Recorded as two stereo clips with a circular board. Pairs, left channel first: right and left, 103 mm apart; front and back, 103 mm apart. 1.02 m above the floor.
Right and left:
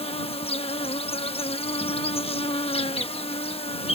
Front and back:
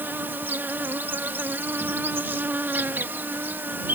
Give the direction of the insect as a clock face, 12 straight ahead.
4 o'clock.